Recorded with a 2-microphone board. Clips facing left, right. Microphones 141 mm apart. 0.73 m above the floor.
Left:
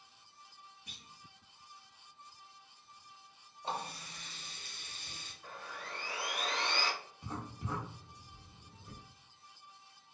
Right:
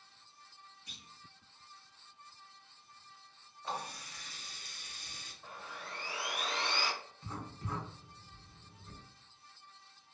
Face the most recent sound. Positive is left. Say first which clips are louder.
# left 2 dB
turn(degrees=20)  # may be behind; listen again after turning